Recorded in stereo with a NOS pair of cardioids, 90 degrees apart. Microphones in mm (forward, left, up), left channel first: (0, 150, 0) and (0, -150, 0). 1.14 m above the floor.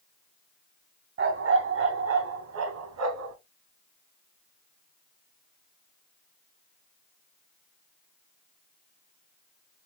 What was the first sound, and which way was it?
A dog barking, 45° right.